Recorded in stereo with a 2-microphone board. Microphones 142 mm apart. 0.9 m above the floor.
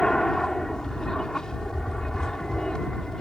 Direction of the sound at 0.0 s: 5° left (ahead or behind).